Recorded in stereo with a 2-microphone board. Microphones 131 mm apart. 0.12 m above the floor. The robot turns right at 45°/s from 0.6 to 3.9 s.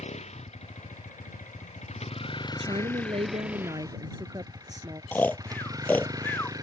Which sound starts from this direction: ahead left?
A vehicle, at 0.0 s.